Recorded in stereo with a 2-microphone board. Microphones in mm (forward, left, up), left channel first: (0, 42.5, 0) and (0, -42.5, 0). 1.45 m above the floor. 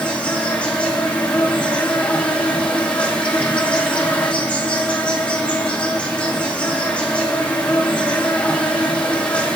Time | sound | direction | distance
0.0 | an insect | 15° left (ahead or behind) | 1.9 m